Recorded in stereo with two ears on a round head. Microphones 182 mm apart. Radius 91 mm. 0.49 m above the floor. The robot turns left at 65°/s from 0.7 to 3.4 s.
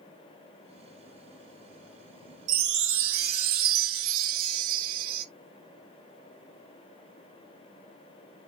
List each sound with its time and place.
2.5 s a chime: 40° right, 0.8 m; by 5.2 s 100° right, 0.8 m